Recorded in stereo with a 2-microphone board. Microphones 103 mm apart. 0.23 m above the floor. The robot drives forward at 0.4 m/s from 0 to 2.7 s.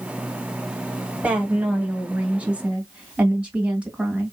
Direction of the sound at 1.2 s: 15° right (ahead or behind).